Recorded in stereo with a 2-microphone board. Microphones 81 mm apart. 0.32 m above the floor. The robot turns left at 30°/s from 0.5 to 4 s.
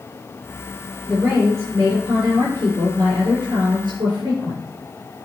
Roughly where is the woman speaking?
Ahead.